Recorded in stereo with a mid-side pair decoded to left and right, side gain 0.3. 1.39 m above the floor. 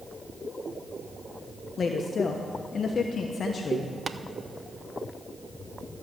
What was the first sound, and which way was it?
A woman speaking, 60° left.